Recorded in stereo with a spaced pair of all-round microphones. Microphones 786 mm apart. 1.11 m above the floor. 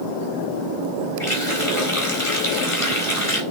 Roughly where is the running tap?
Left.